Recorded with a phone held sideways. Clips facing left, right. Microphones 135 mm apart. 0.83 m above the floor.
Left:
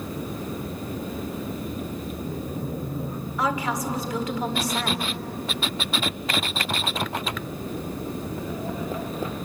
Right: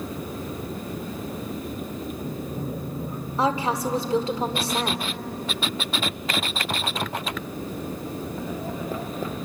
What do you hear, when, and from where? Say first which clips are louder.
3.4 s a woman speaking: right 3 dB; 30° right (ahead or behind), 2 m